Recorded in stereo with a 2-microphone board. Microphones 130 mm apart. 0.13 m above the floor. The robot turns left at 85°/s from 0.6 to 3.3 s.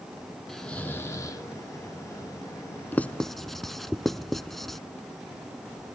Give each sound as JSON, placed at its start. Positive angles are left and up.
{"t": 0.5, "sound": "snoring", "azimuth_deg": 175, "distance_m": 1.5}
{"t": 2.9, "sound": "writing", "side_deg": 15, "distance_m": 0.5}